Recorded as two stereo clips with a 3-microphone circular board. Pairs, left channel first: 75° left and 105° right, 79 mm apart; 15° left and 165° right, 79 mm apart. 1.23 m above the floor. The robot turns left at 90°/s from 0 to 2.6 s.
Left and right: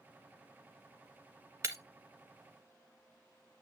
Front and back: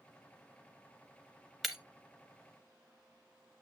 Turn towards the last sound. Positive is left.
turn(degrees=-160)